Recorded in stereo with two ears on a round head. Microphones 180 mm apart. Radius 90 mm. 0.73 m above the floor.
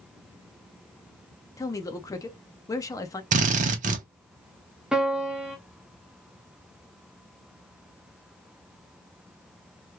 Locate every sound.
1.6 s a man speaking: 15° left (ahead or behind), 0.6 m
3.3 s a drill: 40° right (ahead or behind), 0.6 m
4.9 s a piano: 5° right (ahead or behind), 0.8 m